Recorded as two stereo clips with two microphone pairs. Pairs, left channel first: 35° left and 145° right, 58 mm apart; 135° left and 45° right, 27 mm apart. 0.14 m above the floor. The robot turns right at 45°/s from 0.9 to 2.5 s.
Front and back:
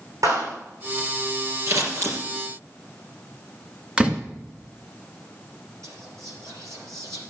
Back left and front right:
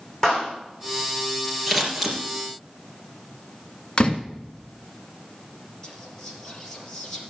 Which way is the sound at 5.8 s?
160° right.